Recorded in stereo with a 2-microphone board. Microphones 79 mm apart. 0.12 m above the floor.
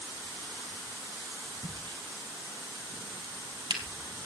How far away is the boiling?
I don't hear boiling.